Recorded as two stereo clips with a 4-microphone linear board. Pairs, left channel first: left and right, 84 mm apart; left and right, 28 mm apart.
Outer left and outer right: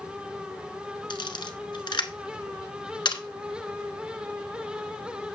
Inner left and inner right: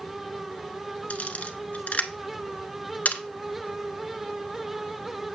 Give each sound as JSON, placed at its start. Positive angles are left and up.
{"t": 1.1, "sound": "a camera shutter", "side_deg": 65, "distance_m": 1.1}